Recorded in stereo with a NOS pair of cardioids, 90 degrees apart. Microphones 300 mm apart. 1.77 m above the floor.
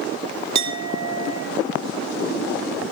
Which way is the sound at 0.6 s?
65° right.